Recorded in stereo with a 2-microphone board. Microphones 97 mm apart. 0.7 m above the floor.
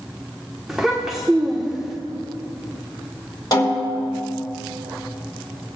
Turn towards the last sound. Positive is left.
turn(degrees=40)  # may be behind; listen again after turning